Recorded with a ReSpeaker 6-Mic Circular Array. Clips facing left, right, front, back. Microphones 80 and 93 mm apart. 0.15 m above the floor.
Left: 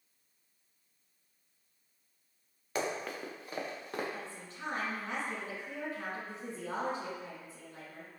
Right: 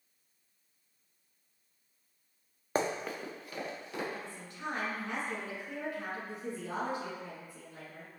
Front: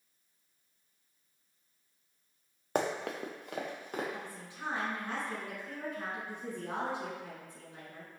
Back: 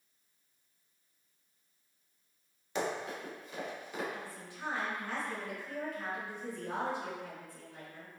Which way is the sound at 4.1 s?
55° left.